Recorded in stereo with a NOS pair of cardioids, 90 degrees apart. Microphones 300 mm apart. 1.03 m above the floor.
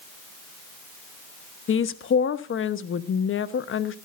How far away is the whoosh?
No whoosh in this recording.